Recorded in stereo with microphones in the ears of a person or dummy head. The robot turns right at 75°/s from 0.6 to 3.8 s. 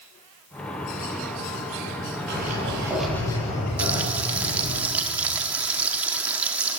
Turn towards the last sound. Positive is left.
turn(degrees=-10)  # may be behind; listen again after turning